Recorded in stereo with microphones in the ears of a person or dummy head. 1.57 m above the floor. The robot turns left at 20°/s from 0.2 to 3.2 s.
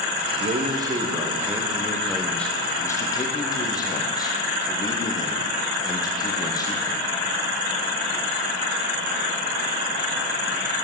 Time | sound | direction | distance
0.4 | a man speaking | 150° right | 0.6 m